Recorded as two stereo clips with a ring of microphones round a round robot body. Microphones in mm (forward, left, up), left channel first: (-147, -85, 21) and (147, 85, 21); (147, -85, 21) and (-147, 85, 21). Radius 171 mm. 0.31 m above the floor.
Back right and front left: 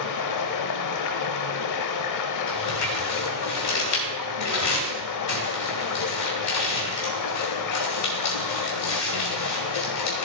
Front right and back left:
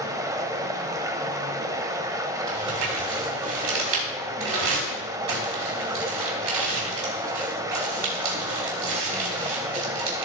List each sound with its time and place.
0.0 s running water: 130° right, 0.7 m
2.5 s crumpling: 175° left, 3 m